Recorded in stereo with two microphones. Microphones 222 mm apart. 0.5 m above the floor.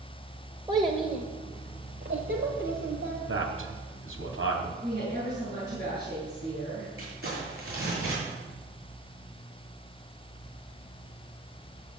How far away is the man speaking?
About 3 m.